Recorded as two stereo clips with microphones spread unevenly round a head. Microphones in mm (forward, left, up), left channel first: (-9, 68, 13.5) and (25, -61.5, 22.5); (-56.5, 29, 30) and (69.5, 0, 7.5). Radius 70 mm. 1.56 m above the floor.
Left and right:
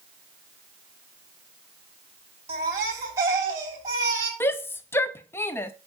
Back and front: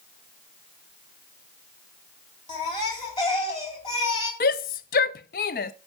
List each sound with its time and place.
2.5 s a baby crying: 145° right, 2.5 m
4.4 s a shout: straight behind, 0.6 m